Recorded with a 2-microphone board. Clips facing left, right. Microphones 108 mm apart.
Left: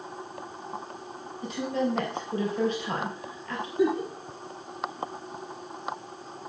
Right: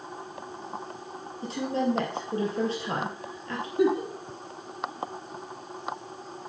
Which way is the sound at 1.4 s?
35° right (ahead or behind).